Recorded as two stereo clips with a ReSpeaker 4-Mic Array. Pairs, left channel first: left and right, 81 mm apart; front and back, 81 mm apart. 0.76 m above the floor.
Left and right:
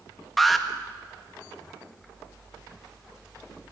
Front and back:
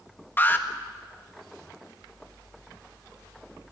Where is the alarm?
Straight ahead, 1.5 m.